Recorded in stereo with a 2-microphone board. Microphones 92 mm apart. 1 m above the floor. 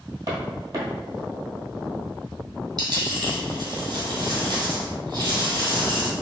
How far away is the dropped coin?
About 1.9 m.